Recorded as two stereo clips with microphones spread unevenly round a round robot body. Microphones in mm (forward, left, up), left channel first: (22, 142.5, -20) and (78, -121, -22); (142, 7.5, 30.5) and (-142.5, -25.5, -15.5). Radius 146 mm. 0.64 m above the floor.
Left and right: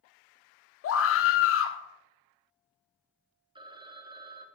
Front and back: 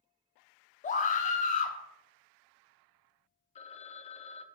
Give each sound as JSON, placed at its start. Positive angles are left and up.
{"t": 0.8, "sound": "a scream", "azimuth_deg": 75, "distance_m": 0.9}
{"t": 3.5, "sound": "a phone ringing", "azimuth_deg": -45, "distance_m": 0.5}